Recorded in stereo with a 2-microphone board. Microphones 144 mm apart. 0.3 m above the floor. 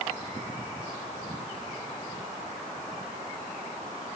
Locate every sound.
Only background noise.